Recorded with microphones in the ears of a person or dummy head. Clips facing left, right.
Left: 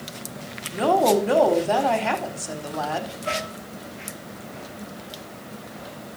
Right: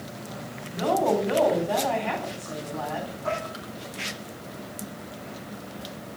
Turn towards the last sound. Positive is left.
turn(degrees=-85)